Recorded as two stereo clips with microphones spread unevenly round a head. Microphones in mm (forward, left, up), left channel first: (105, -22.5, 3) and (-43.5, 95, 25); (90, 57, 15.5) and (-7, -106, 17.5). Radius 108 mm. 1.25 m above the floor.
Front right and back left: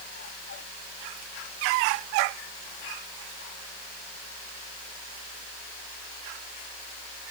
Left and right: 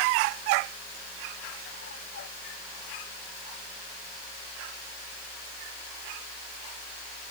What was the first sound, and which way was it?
Only background noise.